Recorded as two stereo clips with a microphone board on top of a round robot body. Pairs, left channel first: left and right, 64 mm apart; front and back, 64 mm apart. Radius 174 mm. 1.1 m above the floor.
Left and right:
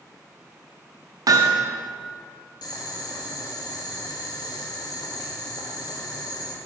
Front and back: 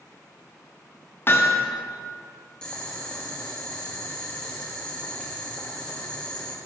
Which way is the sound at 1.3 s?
55° right.